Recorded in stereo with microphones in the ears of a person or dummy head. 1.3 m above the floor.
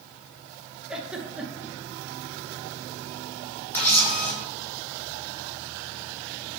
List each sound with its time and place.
0.9 s a giggle: 5° right (ahead or behind), 1.0 m
3.7 s a camera shutter: 15° left (ahead or behind), 2 m